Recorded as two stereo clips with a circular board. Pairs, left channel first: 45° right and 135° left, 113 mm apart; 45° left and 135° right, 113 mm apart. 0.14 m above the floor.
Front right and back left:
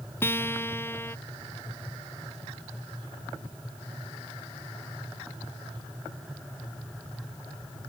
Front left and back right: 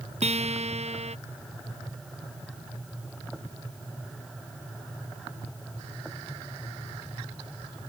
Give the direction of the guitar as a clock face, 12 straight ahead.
4 o'clock.